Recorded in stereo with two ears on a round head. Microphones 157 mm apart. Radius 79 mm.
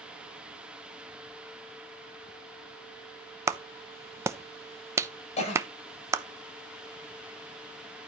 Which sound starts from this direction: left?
A cough, at 5.4 s.